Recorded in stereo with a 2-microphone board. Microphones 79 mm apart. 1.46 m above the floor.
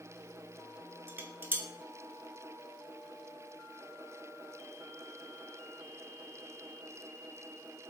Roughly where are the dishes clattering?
Right.